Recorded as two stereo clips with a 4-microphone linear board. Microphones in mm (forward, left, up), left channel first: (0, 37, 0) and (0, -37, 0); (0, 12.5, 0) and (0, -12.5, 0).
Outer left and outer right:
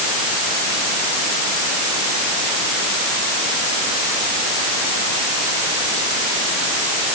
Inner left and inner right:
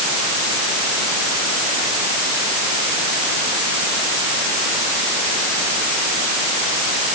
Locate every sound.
Only background noise.